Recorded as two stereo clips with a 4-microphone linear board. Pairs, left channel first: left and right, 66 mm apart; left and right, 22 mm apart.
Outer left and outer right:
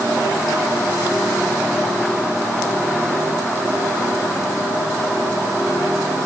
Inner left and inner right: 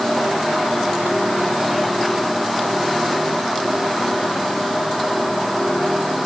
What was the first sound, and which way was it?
Only background noise.